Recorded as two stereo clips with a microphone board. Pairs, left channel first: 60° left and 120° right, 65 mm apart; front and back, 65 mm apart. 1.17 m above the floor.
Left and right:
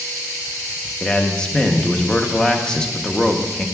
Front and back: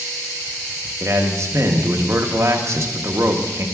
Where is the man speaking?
135° left, 0.8 m.